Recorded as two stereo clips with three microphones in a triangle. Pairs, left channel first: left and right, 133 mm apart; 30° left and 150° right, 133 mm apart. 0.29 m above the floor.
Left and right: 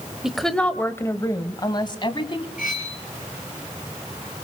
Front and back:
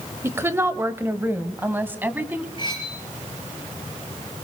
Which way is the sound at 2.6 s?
85° left.